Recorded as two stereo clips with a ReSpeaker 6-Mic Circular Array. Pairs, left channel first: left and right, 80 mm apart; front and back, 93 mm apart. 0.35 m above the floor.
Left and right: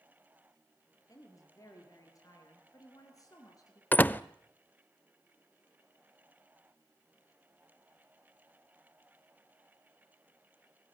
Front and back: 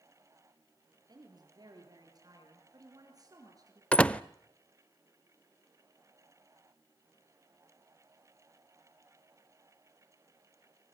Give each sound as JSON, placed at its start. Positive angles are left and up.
{"t": 1.1, "sound": "a woman speaking", "azimuth_deg": 135, "distance_m": 8.0}
{"t": 3.9, "sound": "a door slam", "azimuth_deg": 60, "distance_m": 0.6}